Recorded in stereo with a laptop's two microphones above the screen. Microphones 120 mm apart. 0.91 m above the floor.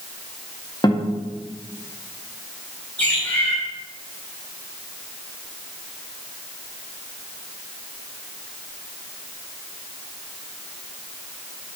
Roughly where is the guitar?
Left.